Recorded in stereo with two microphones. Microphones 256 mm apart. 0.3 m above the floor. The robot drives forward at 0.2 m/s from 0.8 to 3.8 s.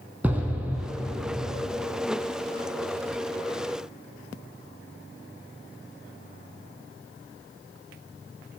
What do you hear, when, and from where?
0.2 s an explosion: 5° right (ahead or behind), 0.6 m